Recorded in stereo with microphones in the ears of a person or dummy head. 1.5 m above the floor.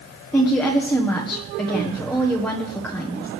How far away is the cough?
No cough in this recording.